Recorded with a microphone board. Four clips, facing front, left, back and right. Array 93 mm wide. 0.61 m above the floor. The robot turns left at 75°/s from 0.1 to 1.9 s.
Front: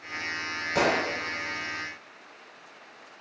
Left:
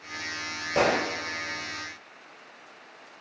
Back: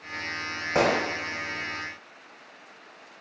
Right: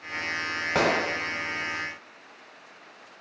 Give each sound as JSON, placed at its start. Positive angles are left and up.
{"t": 0.8, "sound": "a gunshot", "azimuth_deg": -120, "distance_m": 1.6}